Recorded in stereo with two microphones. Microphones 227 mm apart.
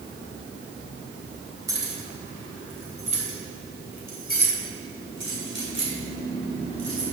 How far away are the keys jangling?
About 3.5 m.